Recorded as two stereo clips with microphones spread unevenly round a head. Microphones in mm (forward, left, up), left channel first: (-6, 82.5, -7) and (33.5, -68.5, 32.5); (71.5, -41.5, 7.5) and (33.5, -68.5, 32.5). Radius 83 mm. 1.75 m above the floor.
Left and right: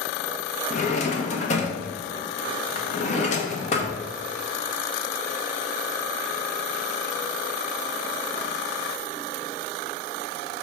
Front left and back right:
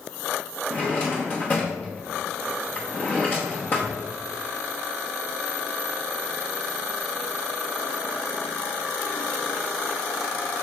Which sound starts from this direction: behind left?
A drawer, at 0.7 s.